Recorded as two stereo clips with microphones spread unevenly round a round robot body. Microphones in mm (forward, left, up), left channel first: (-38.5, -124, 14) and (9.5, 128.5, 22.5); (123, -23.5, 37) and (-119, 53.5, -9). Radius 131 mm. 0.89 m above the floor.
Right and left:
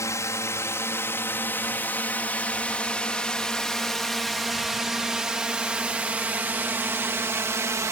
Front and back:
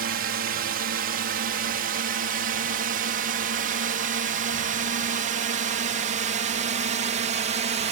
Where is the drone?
175° right; by 7.9 s 150° left.